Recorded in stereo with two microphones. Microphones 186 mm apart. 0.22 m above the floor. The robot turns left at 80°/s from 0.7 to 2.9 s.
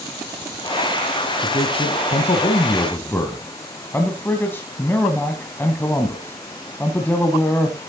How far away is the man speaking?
About 1.4 m.